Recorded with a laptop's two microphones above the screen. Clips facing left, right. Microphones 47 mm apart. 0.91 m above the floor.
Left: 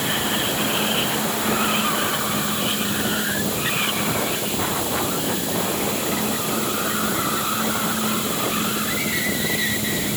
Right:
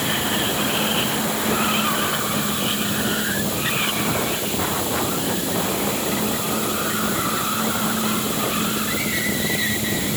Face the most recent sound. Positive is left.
No sound to turn to.